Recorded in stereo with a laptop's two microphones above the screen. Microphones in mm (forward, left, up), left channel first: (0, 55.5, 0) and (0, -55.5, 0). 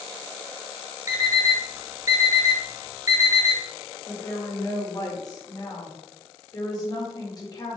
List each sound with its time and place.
1.1 s an alarm clock: 30° right (ahead or behind), 1.1 m
4.1 s a woman speaking: 40° left (ahead or behind), 2 m